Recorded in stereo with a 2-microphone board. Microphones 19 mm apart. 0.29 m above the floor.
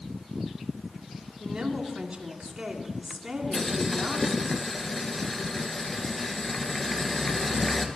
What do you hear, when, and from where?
1.4 s a woman speaking: 30° right (ahead or behind), 2.5 m
3.5 s boiling: 20° left (ahead or behind), 1.6 m